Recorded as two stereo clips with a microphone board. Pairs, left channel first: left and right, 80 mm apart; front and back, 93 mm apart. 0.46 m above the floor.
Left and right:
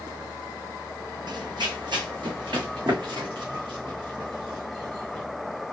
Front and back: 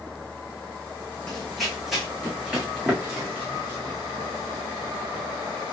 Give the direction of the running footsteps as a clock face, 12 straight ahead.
3 o'clock.